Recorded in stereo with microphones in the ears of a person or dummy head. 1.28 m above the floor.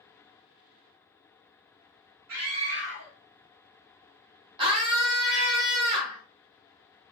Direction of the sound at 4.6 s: 25° right (ahead or behind).